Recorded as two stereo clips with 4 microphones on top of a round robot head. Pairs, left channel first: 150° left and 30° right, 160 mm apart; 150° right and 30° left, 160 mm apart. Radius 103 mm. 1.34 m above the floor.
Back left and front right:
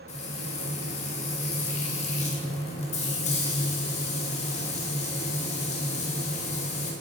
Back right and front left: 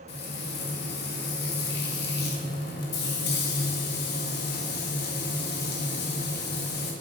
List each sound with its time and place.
0.1 s frying: 165° right, 2.5 m